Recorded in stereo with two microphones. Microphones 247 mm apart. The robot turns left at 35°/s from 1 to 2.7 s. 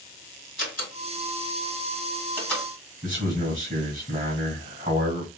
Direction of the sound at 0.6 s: 50° left (ahead or behind).